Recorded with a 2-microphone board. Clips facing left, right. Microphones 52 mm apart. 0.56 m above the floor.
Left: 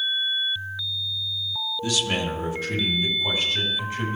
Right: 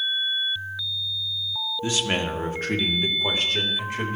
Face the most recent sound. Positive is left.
turn(degrees=-65)  # may be behind; listen again after turning